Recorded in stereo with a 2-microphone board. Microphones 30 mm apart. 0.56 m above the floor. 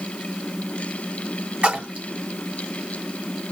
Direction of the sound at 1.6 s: 50° right (ahead or behind).